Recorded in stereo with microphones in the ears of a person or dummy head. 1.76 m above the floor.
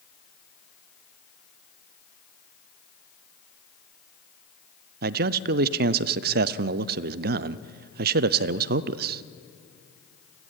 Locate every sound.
5.0 s a man speaking: 60° right (ahead or behind), 0.7 m